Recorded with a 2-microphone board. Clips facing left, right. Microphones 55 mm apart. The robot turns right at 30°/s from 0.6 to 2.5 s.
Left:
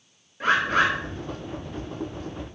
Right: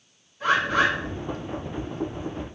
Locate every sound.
0.4 s a bird: 50° left (ahead or behind), 1.5 m